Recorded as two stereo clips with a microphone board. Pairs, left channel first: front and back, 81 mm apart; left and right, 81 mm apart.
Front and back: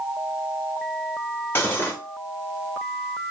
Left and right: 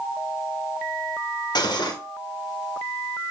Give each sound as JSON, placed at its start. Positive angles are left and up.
{"t": 1.6, "sound": "cutlery clinking", "azimuth_deg": 60, "distance_m": 1.0}